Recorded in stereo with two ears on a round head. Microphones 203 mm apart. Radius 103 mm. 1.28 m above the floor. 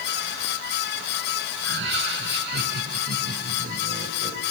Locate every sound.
1.6 s laughter: 55° right (ahead or behind), 6 m; by 4.4 s 35° right (ahead or behind), 6.5 m